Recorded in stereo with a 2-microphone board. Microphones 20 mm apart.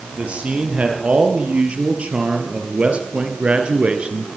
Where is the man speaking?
70° right (ahead or behind), 7 m.